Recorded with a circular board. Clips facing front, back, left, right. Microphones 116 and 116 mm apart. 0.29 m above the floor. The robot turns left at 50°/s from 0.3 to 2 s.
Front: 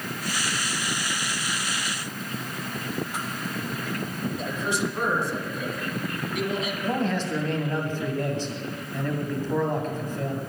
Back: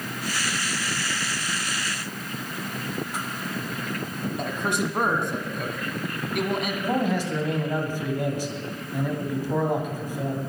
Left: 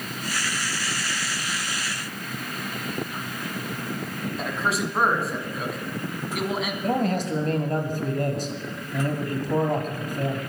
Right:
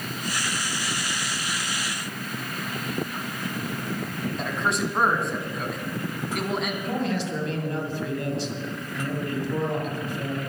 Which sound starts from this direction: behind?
A man speaking, at 4.4 s.